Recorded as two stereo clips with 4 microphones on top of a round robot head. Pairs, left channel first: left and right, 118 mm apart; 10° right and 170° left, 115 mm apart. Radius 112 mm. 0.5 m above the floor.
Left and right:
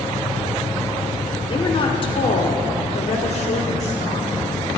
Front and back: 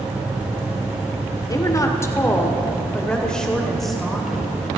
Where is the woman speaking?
45° left, 1.7 m; by 4.5 s 85° left, 2.5 m.